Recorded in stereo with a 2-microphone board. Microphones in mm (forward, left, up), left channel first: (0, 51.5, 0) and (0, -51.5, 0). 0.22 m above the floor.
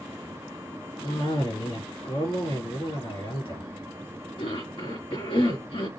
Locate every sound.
1.0 s a cough: 60° left (ahead or behind), 3.5 m